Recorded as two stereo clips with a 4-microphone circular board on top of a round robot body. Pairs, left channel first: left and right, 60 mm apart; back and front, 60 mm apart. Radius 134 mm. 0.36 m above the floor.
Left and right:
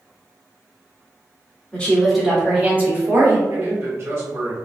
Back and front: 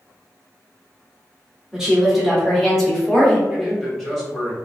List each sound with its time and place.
1.7 s a woman speaking: 75° left, 1.2 m; by 3.4 s 105° right, 1.6 m
3.5 s a man speaking: 95° right, 1.4 m